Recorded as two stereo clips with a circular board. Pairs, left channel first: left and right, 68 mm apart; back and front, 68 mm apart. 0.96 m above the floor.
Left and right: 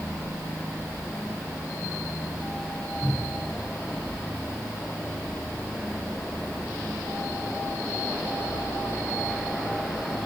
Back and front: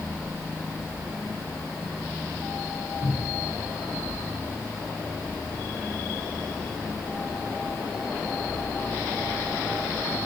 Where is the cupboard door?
Straight behind, 8.5 m.